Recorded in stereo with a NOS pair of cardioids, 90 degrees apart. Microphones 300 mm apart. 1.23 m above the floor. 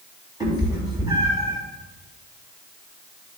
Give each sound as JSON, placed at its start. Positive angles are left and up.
{"t": 0.4, "sound": "a cat meowing", "azimuth_deg": -15, "distance_m": 3.0}